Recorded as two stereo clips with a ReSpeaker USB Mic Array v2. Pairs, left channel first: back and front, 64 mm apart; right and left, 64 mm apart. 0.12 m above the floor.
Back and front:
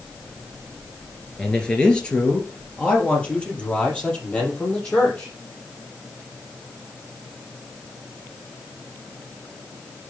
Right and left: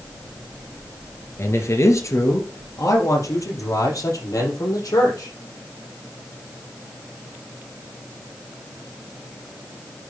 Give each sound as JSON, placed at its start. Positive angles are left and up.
{"t": 1.4, "sound": "a man speaking", "azimuth_deg": -105, "distance_m": 2.5}